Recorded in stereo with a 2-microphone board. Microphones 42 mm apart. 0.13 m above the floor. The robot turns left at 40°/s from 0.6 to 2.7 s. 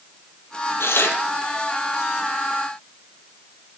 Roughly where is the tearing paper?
Left.